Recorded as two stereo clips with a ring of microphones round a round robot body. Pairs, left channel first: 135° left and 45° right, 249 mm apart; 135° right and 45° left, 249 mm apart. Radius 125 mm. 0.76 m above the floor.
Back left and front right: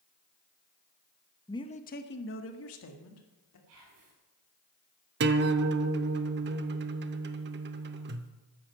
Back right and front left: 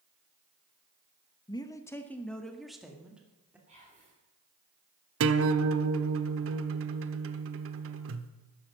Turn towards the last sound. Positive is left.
turn(degrees=5)